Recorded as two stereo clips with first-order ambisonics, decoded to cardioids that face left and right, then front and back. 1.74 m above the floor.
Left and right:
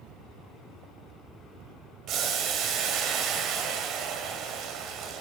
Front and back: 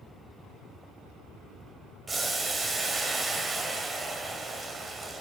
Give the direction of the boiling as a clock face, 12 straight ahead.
4 o'clock.